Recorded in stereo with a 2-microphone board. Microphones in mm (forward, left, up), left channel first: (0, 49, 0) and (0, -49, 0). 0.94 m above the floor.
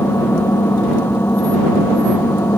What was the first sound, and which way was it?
An engine running, 25° left (ahead or behind).